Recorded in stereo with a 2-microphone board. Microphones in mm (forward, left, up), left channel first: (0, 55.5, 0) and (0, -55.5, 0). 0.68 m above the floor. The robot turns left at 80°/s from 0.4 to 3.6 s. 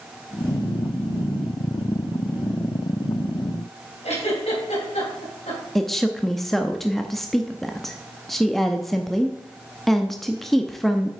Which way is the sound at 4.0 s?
80° left.